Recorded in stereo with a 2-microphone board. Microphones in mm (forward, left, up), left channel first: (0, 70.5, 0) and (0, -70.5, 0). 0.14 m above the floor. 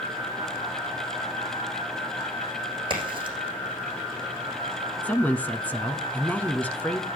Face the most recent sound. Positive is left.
turn(degrees=10)  # may be behind; listen again after turning